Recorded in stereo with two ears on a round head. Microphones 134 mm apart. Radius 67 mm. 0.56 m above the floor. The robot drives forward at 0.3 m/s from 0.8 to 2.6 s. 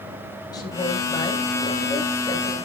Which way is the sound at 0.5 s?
30° left (ahead or behind).